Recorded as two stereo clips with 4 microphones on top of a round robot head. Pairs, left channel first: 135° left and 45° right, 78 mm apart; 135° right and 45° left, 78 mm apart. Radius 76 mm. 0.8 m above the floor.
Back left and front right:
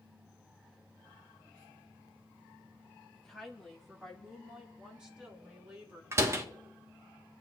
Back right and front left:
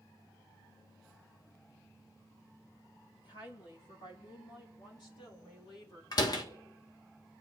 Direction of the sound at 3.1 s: 145° right.